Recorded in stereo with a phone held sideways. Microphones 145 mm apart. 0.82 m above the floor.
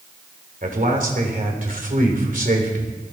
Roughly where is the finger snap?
No finger snap in this recording.